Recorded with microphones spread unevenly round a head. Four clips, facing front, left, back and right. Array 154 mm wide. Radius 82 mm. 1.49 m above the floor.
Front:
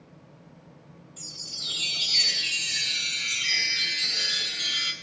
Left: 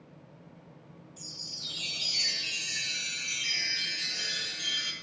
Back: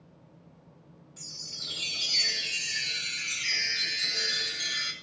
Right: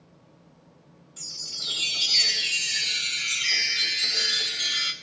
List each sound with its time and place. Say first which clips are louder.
1.2 s a chime: right 1 dB, front 2 dB; 85° right, 2 m